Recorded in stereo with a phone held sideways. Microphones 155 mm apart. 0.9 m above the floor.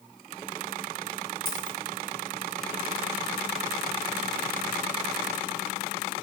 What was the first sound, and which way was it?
A dropped coin, 35° right (ahead or behind).